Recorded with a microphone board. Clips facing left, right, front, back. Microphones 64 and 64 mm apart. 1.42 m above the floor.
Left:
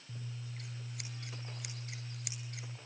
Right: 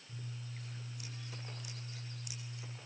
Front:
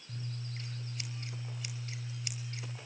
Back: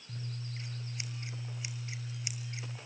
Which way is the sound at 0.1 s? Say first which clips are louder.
Left 1 dB, even; 110° left.